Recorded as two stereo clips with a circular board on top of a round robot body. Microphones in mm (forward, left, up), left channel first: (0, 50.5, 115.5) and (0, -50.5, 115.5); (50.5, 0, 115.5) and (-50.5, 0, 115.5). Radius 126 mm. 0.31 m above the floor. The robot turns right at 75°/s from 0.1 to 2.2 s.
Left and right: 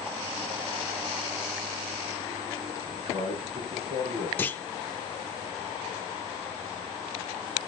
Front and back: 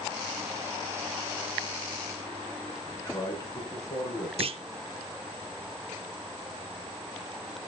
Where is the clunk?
160° left, 0.8 m.